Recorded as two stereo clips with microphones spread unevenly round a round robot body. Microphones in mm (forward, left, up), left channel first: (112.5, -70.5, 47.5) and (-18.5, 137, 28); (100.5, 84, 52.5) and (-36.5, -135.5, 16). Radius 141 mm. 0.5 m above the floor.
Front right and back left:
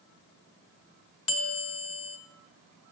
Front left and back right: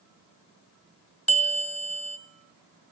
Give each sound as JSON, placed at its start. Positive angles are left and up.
{"t": 1.3, "sound": "a bell", "azimuth_deg": -30, "distance_m": 1.5}